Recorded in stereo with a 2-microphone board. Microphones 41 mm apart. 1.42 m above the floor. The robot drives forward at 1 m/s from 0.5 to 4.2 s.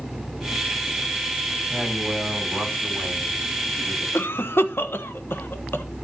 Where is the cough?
75° left (ahead or behind), 1.3 m; by 5.8 s 70° left (ahead or behind), 1.3 m.